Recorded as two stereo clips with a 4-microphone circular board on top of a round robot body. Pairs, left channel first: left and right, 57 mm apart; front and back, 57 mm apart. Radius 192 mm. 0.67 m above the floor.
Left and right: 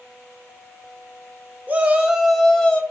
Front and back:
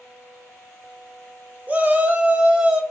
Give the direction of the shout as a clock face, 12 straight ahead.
4 o'clock.